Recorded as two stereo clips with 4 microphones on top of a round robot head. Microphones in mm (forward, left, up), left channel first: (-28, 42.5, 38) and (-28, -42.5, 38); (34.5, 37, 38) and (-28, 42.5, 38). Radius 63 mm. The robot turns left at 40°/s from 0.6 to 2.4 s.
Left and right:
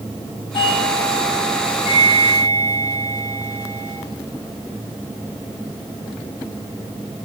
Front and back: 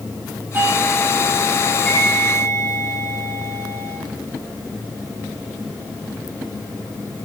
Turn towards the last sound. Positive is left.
turn(degrees=45)